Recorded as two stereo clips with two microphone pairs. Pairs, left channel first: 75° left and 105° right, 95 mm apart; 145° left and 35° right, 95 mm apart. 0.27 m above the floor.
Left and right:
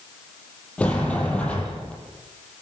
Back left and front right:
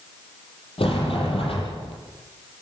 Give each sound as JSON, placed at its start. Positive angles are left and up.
{"t": 0.8, "sound": "a sliding door", "azimuth_deg": 155, "distance_m": 7.5}